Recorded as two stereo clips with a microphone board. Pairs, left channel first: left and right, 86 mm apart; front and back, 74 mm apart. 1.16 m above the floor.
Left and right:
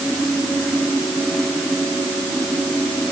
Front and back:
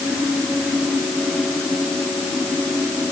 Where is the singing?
I don't hear singing.